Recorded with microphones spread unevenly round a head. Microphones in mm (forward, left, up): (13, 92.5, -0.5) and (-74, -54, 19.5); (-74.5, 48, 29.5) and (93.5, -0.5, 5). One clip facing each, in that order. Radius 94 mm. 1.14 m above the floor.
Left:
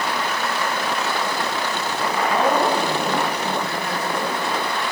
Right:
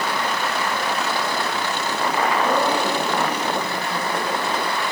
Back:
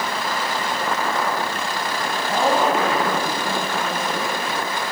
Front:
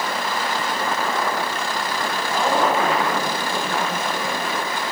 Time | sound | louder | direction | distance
2.3 | a woman speaking | left 3 dB, back 1 dB | 110° left | 9.5 m